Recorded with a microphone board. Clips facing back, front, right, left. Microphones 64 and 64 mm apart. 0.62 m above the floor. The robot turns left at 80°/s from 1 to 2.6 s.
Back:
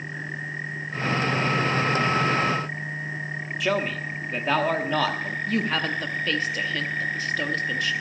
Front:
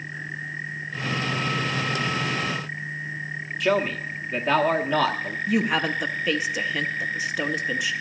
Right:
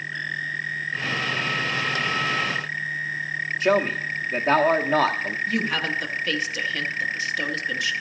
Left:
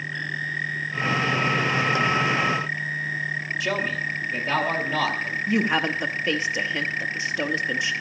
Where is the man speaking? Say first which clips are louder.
Front 3 dB, right 7 dB; 90° right, 1.0 m.